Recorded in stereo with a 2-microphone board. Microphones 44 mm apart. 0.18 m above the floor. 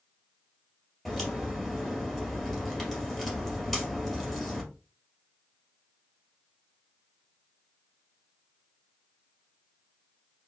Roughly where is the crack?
Centre.